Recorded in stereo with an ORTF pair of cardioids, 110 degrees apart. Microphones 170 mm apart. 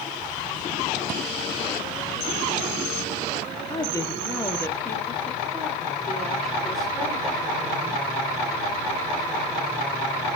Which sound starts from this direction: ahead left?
A woman speaking, at 3.7 s.